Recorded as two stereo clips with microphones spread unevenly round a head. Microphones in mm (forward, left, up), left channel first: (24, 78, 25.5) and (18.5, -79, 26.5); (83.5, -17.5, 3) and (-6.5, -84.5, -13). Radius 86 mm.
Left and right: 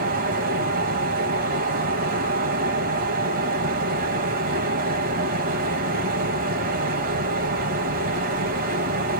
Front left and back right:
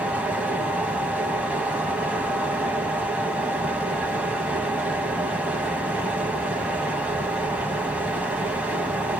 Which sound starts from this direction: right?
A fan, at 0.0 s.